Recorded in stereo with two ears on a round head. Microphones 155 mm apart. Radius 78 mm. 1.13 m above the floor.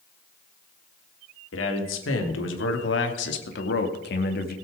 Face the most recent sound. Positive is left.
turn(degrees=60)  # may be behind; listen again after turning